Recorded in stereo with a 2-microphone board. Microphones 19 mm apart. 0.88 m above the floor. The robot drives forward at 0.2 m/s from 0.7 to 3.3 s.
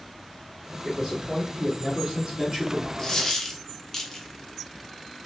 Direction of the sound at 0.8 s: 30° right (ahead or behind).